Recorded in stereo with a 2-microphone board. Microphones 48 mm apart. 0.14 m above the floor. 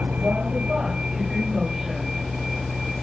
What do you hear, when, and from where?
0.0 s a vehicle: 25° right (ahead or behind); by 3.0 s centre (ahead or behind)